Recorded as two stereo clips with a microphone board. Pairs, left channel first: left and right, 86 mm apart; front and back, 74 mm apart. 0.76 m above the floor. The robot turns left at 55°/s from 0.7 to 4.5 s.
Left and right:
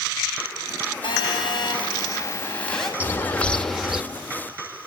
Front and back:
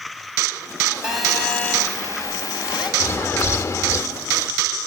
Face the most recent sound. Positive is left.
turn(degrees=-35)